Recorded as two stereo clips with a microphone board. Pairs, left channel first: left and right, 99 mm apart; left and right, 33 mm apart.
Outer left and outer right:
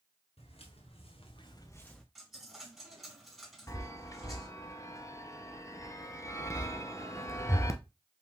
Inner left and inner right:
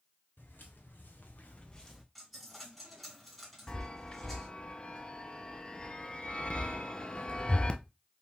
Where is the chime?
30° left (ahead or behind), 0.7 m.